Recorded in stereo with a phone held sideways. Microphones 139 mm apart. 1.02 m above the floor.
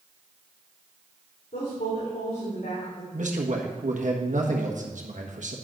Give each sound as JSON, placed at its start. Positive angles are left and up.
{"t": 1.5, "sound": "a woman speaking", "side_deg": 85, "distance_m": 3.5}
{"t": 3.1, "sound": "a man speaking", "side_deg": -65, "distance_m": 1.4}